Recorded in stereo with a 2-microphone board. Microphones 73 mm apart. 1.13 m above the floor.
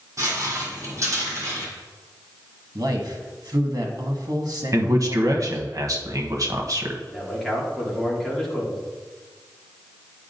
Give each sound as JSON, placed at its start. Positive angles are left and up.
{"t": 0.2, "sound": "footsteps", "side_deg": -40, "distance_m": 2.0}
{"t": 2.8, "sound": "a man speaking", "side_deg": -60, "distance_m": 1.3}
{"t": 4.7, "sound": "a man speaking", "side_deg": -50, "distance_m": 1.0}
{"t": 7.1, "sound": "a man speaking", "side_deg": 0, "distance_m": 2.0}